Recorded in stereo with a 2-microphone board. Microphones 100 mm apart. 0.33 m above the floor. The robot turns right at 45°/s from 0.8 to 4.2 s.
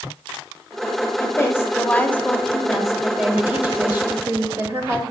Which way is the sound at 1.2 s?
25° left (ahead or behind).